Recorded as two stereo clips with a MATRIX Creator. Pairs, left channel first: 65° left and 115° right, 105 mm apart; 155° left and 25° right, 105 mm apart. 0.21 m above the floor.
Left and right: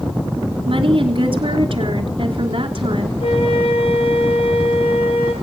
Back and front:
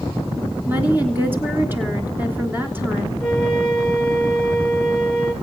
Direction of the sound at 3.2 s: 75° left.